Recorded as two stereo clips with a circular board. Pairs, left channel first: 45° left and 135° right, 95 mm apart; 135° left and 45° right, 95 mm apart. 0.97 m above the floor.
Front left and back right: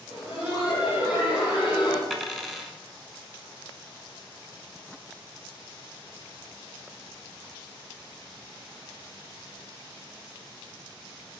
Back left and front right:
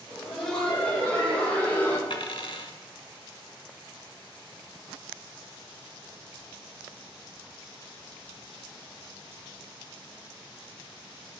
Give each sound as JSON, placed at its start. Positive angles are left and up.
{"t": 0.1, "sound": "laughter", "azimuth_deg": 50, "distance_m": 3.5}
{"t": 2.1, "sound": "a dropped coin", "azimuth_deg": 130, "distance_m": 1.1}